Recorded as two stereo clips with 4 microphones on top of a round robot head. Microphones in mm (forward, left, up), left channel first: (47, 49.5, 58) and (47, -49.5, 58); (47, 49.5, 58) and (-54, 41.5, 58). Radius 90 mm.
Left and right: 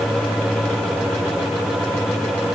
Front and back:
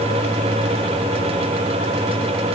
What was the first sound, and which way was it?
Only background noise.